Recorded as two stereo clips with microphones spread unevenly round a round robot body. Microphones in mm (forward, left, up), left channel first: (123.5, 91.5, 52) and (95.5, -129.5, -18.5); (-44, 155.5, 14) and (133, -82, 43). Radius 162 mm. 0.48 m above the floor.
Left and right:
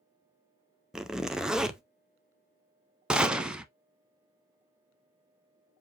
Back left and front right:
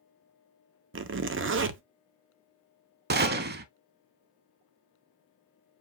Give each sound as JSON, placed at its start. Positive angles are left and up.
{"t": 0.9, "sound": "a zipper", "azimuth_deg": -40, "distance_m": 0.6}
{"t": 3.1, "sound": "a gunshot", "azimuth_deg": 0, "distance_m": 0.6}